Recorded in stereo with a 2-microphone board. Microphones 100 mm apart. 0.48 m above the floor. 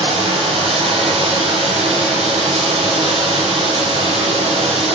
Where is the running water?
90° right, 8 m.